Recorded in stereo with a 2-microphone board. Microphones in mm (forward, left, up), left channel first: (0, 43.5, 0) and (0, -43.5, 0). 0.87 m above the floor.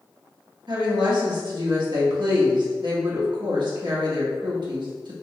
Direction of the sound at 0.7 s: 60° right (ahead or behind).